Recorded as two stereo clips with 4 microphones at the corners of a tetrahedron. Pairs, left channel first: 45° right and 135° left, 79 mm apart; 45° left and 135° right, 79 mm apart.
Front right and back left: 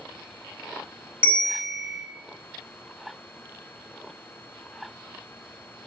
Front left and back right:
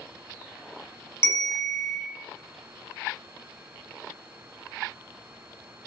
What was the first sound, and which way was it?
A bell, 70° left.